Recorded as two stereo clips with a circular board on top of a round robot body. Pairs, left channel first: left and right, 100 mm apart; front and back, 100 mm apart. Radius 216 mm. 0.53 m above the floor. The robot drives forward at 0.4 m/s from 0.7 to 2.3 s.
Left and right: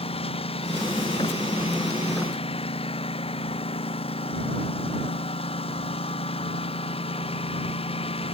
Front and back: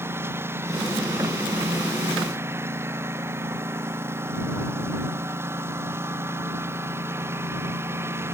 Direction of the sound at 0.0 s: 115° left.